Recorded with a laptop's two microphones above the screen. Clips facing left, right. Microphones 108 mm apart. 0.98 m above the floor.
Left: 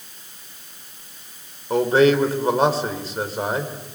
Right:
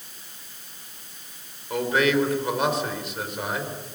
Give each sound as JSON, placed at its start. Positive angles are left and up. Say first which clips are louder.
{"t": 1.7, "sound": "a man speaking", "louder": "left 6 dB", "side_deg": 35, "distance_m": 3.5}